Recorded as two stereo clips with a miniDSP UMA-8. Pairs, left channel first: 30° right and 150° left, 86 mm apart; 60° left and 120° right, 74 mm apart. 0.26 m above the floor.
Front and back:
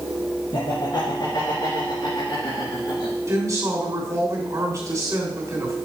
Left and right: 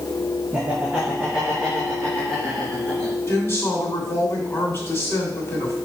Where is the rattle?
No rattle in this recording.